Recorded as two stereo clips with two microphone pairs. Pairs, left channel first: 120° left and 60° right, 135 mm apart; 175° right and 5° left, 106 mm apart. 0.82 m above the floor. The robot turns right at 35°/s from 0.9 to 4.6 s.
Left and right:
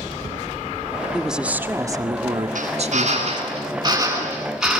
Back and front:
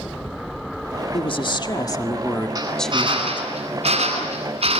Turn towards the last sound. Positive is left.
turn(degrees=25)